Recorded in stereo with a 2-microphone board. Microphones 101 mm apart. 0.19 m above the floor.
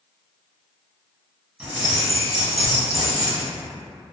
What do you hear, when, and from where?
1.6 s keys jangling: 5° right (ahead or behind), 0.9 m